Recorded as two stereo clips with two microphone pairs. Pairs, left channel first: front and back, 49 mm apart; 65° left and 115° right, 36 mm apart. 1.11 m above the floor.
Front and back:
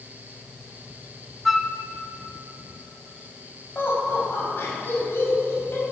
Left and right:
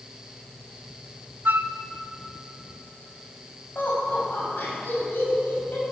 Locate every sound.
1.4 s a flute: 95° right, 0.6 m
3.8 s laughter: 40° left, 6 m